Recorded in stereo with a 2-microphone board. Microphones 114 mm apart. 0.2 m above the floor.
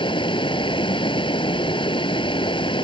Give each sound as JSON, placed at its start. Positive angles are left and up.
{"t": 0.0, "sound": "running water", "side_deg": 50}